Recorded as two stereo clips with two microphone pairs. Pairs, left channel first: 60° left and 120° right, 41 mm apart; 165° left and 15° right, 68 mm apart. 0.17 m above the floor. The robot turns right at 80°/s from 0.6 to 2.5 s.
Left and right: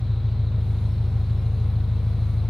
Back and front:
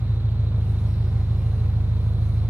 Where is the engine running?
155° right, 1.5 m; by 2.5 s 5° right, 1.5 m.